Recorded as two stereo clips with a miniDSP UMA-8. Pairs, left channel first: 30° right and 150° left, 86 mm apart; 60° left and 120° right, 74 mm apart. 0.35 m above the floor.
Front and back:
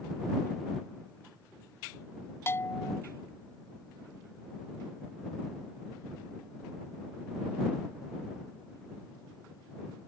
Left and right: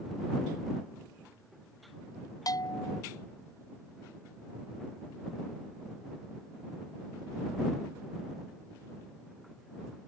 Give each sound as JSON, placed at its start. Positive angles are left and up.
{"t": 2.5, "sound": "a bell", "azimuth_deg": 30}